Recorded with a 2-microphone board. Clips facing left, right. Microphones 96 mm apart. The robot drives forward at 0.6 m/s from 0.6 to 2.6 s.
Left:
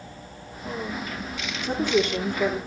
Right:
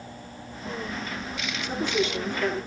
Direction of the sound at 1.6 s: 55° left (ahead or behind).